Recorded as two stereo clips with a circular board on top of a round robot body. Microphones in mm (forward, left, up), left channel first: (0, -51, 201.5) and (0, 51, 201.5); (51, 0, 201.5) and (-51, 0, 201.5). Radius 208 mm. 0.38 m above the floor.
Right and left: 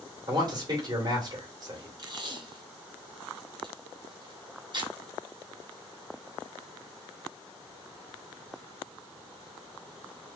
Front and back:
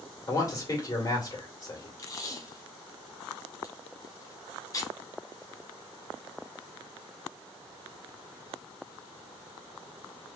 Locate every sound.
0.3 s a man speaking: 55° left, 2 m
2.0 s tape being pulled: 55° left, 2.5 m